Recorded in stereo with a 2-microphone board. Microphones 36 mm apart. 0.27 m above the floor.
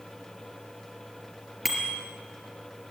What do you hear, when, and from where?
1.6 s a bicycle bell: centre (ahead or behind), 3.5 m